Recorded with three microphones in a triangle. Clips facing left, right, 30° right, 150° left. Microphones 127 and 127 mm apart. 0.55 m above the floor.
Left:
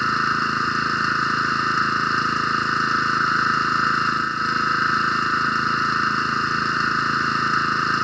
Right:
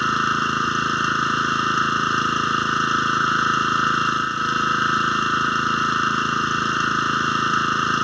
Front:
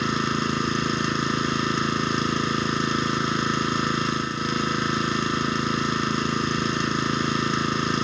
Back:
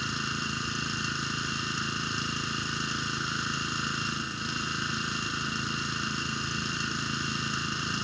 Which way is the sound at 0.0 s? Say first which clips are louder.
Right 1 dB, front 11 dB; 10° right.